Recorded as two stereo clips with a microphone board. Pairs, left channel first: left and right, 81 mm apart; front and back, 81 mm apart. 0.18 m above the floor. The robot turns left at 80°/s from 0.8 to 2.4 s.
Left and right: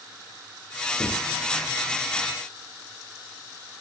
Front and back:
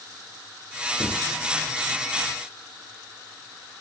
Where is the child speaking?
No child speaking in this recording.